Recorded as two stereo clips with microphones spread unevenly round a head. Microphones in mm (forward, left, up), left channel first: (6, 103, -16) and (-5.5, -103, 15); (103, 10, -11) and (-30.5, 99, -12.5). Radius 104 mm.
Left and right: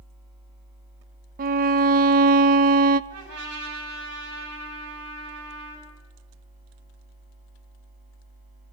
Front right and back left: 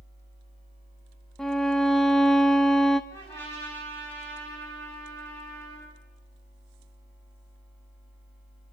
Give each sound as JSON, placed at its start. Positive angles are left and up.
{"t": 1.4, "sound": "a violin", "azimuth_deg": -120, "distance_m": 0.6}
{"t": 3.1, "sound": "a trumpet", "azimuth_deg": -115, "distance_m": 8.5}